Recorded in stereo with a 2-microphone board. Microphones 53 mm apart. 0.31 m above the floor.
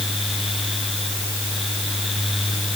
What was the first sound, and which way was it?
Only background noise.